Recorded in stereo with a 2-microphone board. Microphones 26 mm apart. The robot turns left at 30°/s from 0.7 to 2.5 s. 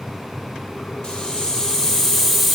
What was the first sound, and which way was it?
A hiss, 45° left.